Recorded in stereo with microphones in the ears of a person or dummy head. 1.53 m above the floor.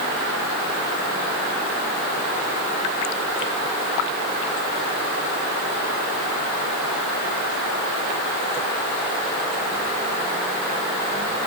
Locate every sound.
Only background noise.